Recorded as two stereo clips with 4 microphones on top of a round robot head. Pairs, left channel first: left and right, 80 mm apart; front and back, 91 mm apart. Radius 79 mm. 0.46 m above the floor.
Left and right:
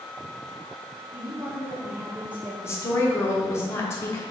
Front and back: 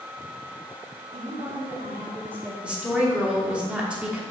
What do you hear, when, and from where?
1.1 s a woman speaking: 145° right, 1.7 m
2.6 s a woman speaking: 115° left, 1.2 m